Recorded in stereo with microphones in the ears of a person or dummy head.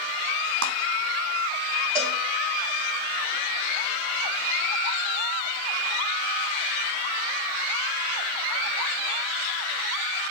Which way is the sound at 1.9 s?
5° right (ahead or behind).